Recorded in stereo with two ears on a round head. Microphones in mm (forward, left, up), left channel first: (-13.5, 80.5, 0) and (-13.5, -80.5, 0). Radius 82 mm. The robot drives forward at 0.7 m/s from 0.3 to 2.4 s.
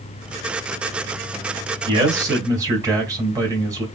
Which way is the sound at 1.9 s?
25° right (ahead or behind).